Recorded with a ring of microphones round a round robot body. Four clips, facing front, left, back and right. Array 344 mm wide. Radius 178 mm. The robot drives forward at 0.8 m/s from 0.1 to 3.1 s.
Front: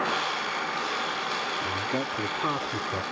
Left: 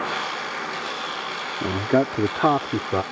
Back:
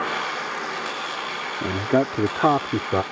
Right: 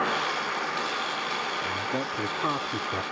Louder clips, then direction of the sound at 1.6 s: Left 9 dB, back 8 dB; 125° left.